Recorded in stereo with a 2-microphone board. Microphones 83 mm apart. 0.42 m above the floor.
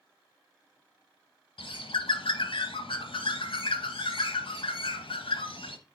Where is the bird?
80° left, 0.8 m.